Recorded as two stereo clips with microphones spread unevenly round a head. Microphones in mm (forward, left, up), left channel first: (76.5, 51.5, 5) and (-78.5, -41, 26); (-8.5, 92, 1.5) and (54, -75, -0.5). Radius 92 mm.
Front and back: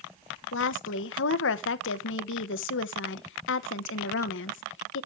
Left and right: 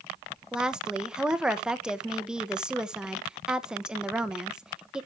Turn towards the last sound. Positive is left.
turn(degrees=15)